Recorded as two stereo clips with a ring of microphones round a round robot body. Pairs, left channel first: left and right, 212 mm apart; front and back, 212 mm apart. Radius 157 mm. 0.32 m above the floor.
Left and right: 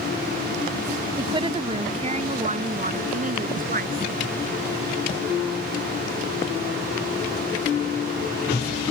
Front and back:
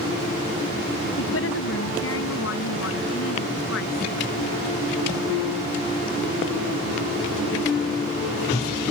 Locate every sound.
1.2 s a woman speaking: 20° right; by 4.0 s 45° right